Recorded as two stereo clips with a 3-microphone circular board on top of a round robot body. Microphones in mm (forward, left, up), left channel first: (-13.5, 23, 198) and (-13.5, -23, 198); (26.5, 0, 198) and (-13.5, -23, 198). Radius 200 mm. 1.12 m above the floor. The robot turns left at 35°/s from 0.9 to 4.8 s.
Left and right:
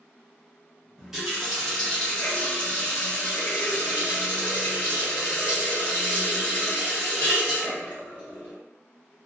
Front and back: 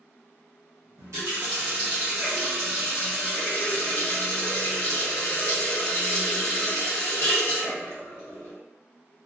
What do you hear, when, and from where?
1.0 s a running tap: 170° right, 0.9 m; by 8.5 s 60° left, 0.9 m